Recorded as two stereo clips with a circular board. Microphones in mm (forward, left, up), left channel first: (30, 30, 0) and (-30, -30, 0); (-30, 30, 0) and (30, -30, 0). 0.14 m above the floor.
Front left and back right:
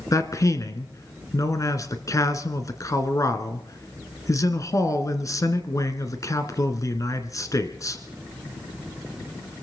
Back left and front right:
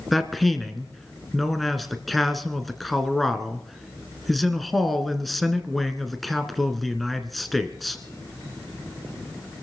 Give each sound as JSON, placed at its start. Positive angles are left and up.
{"t": 0.1, "sound": "a man speaking", "azimuth_deg": 45, "distance_m": 1.5}